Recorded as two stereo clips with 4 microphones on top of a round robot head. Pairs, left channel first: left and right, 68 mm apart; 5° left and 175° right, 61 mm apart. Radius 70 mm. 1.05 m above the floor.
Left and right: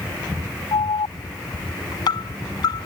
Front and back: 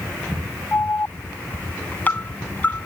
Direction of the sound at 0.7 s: 65° left.